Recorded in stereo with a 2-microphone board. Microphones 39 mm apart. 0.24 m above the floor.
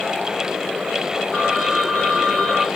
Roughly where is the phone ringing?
Centre.